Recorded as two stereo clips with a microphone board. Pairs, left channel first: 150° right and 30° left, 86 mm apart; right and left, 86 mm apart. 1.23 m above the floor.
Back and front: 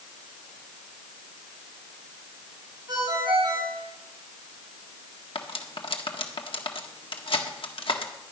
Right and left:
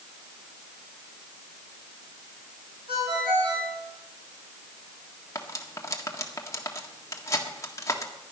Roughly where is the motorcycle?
No motorcycle in this recording.